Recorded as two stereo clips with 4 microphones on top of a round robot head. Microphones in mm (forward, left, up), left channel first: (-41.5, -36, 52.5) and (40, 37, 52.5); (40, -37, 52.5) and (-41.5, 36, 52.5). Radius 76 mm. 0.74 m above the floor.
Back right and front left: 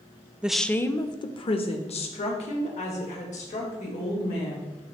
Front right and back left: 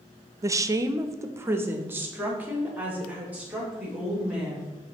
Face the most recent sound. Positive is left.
turn(degrees=-145)